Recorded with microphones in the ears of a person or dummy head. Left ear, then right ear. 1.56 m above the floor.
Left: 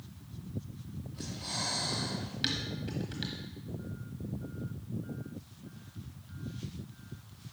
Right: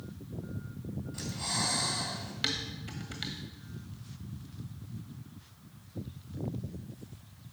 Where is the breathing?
55° right (ahead or behind), 2.5 m.